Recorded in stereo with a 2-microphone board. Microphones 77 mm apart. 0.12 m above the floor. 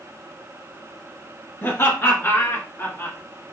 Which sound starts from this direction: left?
Laughter, at 1.6 s.